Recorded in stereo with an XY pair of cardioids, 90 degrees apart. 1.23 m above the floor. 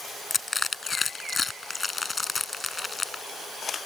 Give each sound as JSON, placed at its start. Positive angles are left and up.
{"t": 0.3, "sound": "crushing", "azimuth_deg": 30}